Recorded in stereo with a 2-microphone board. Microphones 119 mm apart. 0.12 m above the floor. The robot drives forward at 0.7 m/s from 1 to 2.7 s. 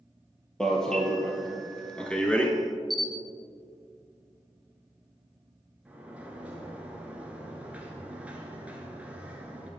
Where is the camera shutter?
Centre (ahead or behind), 0.8 m.